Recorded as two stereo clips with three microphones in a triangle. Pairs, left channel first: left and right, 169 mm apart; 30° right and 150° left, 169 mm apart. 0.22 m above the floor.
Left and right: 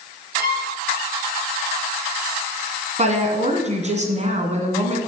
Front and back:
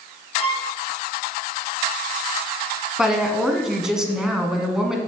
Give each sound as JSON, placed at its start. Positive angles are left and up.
{"t": 0.3, "sound": "a violin", "azimuth_deg": -80, "distance_m": 3.0}
{"t": 3.0, "sound": "a woman speaking", "azimuth_deg": -125, "distance_m": 1.7}